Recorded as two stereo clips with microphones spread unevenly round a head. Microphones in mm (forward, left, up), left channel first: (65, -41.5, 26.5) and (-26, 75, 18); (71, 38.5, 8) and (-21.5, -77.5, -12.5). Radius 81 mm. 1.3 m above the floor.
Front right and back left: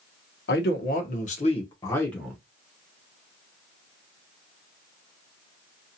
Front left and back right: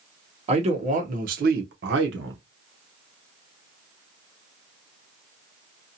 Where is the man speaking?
80° right, 1.0 m; by 2.4 s 145° right, 0.8 m.